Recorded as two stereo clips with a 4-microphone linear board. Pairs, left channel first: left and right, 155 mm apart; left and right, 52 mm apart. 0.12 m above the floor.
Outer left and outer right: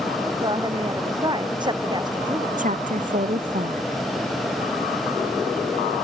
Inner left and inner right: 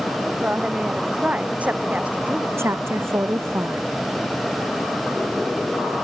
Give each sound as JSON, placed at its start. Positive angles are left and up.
{"t": 0.4, "sound": "a woman speaking", "side_deg": -30}
{"t": 2.6, "sound": "a woman speaking", "side_deg": -55}